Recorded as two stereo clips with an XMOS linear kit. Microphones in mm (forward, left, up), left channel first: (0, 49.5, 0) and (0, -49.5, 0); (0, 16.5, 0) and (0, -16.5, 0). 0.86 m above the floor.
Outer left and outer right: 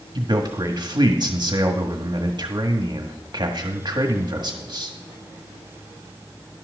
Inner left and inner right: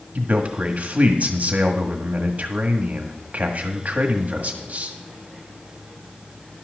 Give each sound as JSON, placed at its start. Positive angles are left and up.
{"t": 0.1, "sound": "a man speaking", "side_deg": -45, "distance_m": 1.5}